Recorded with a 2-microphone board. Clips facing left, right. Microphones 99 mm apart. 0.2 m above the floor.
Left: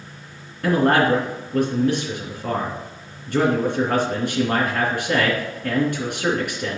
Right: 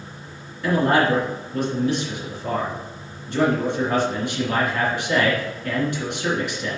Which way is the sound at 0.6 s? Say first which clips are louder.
Left 1 dB; 55° left (ahead or behind).